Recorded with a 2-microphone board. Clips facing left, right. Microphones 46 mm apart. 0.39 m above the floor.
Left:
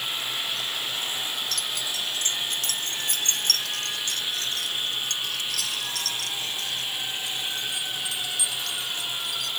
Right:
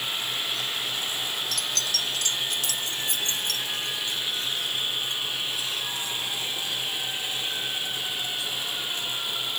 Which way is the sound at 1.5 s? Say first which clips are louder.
Right 1 dB; centre (ahead or behind).